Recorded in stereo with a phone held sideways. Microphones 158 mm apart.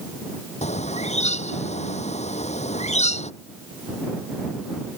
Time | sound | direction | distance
0.6 | a bird | 45° left (ahead or behind) | ?